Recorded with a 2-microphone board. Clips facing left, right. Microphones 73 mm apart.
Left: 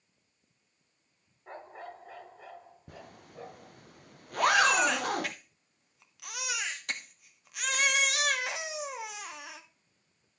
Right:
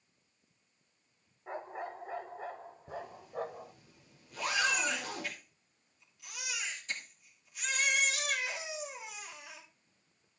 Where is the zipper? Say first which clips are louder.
Right 7 dB; 65° left (ahead or behind), 0.5 m.